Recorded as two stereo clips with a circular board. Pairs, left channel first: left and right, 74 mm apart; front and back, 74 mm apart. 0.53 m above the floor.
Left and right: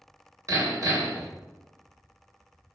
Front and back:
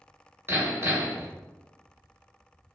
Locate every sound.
0.5 s hammering: 130° right, 2 m